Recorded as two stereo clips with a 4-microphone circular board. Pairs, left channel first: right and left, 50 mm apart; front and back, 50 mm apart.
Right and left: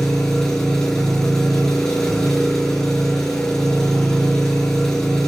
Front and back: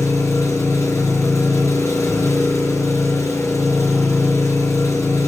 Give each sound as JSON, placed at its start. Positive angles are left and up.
{"t": 0.0, "sound": "an engine running", "azimuth_deg": -10, "distance_m": 7.0}